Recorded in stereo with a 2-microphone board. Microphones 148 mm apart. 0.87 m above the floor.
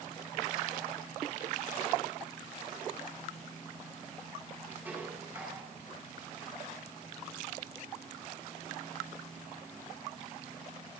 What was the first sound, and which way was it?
Dishes clattering, 10° right (ahead or behind).